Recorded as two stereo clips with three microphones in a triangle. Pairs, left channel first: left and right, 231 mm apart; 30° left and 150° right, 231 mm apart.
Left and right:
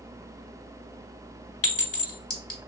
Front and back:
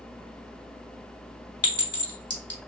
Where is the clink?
100° left, 1.5 m.